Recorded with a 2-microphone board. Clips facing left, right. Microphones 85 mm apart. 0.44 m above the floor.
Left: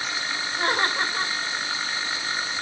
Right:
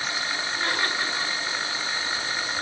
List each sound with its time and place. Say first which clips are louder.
0.6 s laughter: left 5 dB; 40° left (ahead or behind), 2.5 m